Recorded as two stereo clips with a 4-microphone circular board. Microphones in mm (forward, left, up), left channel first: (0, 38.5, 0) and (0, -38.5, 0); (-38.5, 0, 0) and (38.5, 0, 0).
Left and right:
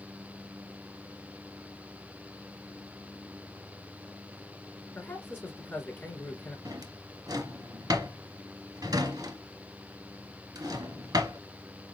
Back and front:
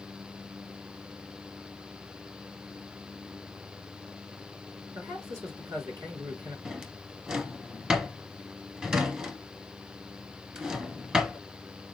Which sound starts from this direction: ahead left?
A man speaking, at 5.0 s.